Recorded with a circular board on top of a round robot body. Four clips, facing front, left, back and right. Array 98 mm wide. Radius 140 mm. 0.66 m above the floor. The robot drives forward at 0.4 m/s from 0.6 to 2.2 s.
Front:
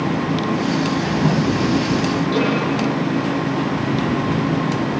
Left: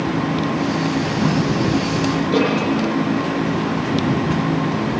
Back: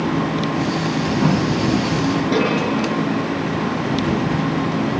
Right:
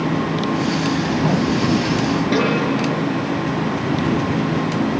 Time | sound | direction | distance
2.3 | a snare drum | 115° right | 6 m